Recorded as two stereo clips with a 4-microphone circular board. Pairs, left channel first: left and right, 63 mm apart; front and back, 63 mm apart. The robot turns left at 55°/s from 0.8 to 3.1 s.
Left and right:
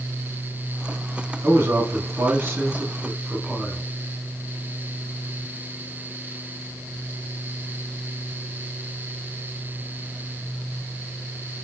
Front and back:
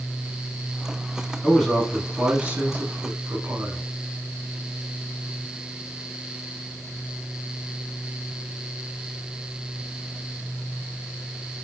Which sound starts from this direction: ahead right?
A man speaking, at 1.4 s.